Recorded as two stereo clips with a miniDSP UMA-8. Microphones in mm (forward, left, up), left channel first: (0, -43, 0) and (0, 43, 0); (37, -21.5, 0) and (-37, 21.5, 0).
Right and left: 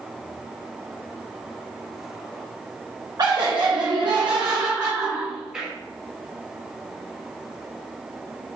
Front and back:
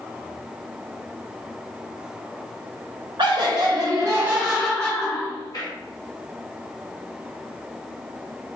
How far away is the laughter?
About 0.9 m.